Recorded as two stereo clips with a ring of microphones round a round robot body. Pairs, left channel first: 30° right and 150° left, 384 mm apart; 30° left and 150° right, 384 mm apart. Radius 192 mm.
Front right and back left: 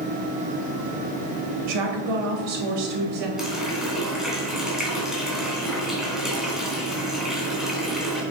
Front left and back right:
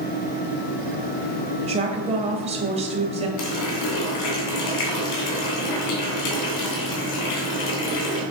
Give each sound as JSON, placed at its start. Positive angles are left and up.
{"t": 1.6, "sound": "a woman speaking", "azimuth_deg": 135, "distance_m": 2.5}
{"t": 3.4, "sound": "a running tap", "azimuth_deg": 60, "distance_m": 3.0}